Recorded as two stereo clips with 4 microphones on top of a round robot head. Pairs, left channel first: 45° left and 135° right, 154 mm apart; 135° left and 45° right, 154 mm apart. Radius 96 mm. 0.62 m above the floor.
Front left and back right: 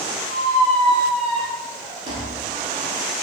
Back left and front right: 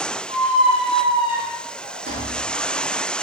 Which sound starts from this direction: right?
A squeak, at 0.3 s.